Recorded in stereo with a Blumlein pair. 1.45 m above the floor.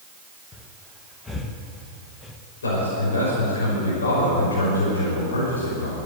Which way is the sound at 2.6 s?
70° left.